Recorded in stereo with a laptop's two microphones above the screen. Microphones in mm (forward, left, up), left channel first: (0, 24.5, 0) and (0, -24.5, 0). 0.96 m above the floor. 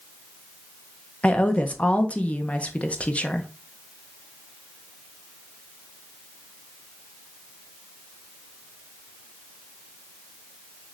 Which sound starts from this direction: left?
A woman speaking, at 1.2 s.